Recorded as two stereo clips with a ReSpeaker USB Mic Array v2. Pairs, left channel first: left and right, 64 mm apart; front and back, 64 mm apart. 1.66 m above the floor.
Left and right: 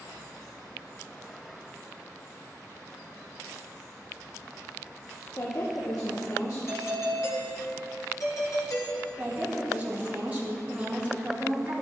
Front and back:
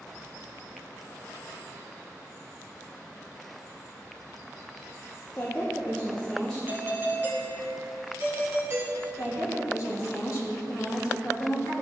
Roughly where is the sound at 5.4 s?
Ahead left.